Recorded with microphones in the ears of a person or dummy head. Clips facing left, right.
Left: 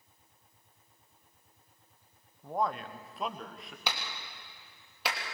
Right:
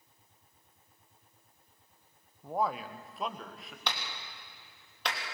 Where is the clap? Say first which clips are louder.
Left 1 dB; 10° left (ahead or behind), 3 m.